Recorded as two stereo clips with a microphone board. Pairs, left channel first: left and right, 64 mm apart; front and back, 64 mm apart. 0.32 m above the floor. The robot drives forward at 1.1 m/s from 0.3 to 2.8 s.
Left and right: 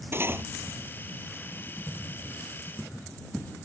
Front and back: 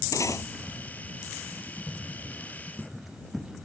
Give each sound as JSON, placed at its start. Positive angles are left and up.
{"t": 0.1, "sound": "cutlery clinking", "azimuth_deg": -35}